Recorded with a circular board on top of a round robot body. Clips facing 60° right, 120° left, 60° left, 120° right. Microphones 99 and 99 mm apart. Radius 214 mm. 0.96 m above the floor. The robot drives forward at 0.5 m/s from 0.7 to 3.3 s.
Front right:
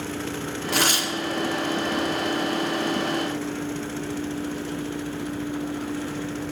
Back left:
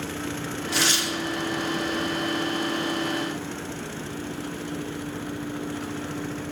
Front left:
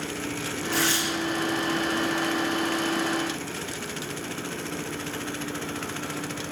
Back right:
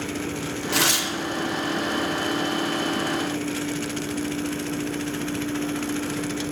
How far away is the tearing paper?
About 1.5 m.